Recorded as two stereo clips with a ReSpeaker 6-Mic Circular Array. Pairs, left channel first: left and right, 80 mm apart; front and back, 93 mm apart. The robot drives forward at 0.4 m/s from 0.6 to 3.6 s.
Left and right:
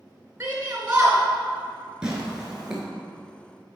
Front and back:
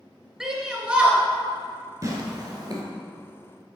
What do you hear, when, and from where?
0.4 s a shout: 105° right, 1.1 m; by 1.2 s 130° right, 1.2 m
2.0 s tearing paper: 160° right, 1.3 m; by 2.8 s 165° right, 1.5 m